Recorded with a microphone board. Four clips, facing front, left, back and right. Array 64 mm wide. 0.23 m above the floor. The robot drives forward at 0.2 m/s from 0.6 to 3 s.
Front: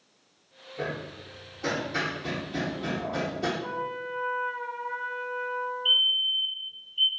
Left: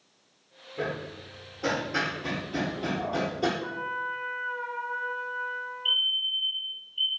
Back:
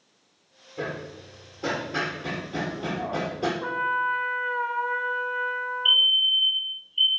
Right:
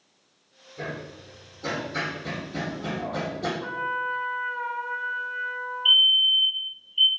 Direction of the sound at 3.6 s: 165° right.